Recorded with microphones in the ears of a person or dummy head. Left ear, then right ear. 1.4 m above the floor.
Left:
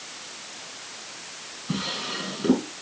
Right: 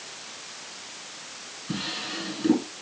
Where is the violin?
I don't hear a violin.